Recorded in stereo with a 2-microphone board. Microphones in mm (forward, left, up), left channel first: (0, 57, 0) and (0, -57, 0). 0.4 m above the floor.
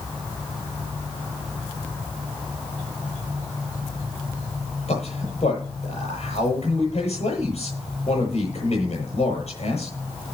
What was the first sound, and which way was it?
A man speaking, 70° left (ahead or behind).